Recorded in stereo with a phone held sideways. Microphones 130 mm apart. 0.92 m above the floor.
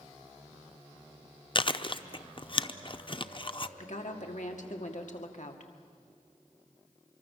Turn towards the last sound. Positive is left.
turn(degrees=70)  # may be behind; listen again after turning